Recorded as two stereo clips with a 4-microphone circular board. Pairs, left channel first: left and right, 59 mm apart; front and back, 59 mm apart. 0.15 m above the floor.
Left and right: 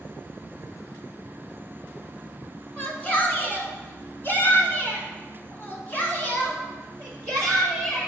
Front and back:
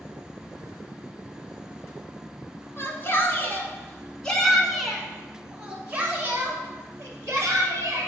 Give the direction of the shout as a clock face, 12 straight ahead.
11 o'clock.